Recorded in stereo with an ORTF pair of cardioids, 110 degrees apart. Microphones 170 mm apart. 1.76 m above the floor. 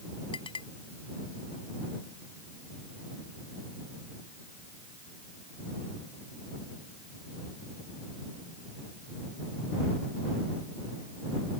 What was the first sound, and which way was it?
A clink, 30° left.